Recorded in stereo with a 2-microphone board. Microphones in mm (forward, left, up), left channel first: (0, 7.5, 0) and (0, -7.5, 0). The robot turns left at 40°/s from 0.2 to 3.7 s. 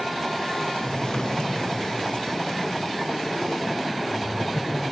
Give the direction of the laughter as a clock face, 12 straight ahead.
6 o'clock.